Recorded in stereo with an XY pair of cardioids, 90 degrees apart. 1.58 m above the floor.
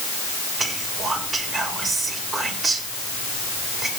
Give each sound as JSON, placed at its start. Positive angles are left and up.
{"t": 0.6, "sound": "whispering", "azimuth_deg": -40, "distance_m": 8.0}